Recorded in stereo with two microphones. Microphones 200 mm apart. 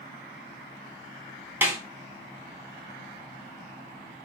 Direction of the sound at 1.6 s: 10° right (ahead or behind).